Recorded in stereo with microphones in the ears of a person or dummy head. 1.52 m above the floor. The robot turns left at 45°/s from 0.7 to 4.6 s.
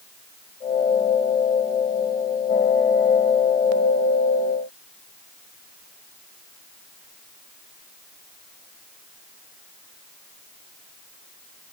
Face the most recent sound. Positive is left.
No sound to turn to.